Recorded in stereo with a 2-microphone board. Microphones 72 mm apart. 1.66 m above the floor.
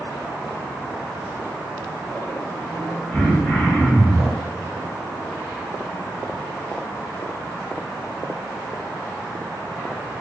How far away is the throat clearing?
About 1.8 m.